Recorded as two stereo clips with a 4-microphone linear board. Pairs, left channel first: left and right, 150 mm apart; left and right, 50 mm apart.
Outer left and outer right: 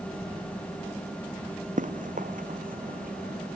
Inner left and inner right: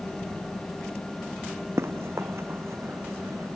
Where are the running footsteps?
60° right (ahead or behind); by 3.6 s 70° right (ahead or behind).